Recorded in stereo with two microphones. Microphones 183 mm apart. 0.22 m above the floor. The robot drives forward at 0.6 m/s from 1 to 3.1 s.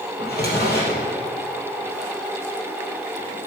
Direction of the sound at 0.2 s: 60° left (ahead or behind).